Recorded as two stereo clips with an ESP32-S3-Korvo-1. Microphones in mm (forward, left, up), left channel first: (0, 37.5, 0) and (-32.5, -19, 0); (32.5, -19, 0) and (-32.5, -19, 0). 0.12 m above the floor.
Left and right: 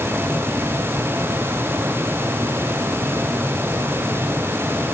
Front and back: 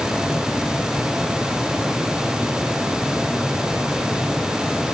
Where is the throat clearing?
No throat clearing in this recording.